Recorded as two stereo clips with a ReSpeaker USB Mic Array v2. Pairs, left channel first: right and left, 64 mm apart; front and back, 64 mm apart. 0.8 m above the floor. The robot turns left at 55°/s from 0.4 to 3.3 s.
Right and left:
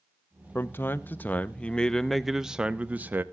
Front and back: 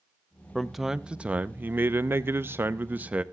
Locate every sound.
0.6 s a man speaking: 85° right, 0.7 m; by 3.2 s 125° left, 0.7 m